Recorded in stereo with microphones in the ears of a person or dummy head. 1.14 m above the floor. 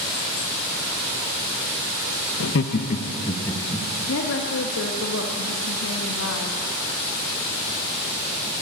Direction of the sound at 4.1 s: 70° left (ahead or behind).